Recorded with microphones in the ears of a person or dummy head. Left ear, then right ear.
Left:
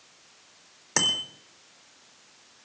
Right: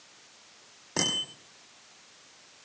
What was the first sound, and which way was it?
A bicycle bell, 55° left (ahead or behind).